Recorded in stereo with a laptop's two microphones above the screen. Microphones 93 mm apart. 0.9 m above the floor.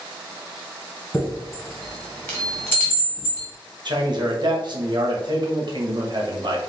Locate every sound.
1.1 s a chime: 25° left (ahead or behind), 1.7 m
3.9 s a man speaking: 55° right (ahead or behind), 1.1 m